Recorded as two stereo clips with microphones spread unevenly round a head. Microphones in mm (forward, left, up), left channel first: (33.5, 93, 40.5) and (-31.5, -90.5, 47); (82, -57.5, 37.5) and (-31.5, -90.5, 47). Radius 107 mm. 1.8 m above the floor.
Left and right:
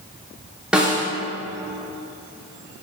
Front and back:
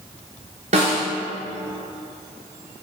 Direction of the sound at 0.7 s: 170° left.